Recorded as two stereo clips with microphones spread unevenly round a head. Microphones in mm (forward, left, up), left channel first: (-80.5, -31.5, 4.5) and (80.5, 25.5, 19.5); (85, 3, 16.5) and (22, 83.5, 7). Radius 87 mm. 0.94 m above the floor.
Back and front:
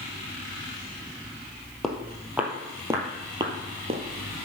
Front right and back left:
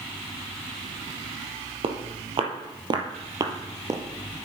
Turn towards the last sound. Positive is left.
turn(degrees=65)